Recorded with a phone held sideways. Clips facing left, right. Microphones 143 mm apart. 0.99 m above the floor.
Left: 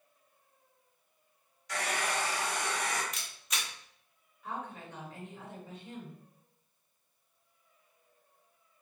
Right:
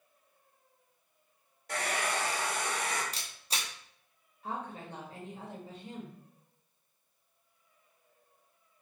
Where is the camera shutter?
30° right (ahead or behind), 0.8 m.